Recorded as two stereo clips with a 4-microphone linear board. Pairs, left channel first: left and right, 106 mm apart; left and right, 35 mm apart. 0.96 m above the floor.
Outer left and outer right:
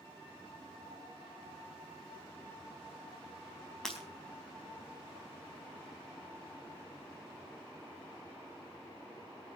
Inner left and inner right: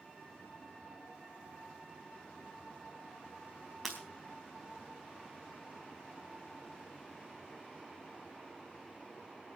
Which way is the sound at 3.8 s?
5° left (ahead or behind).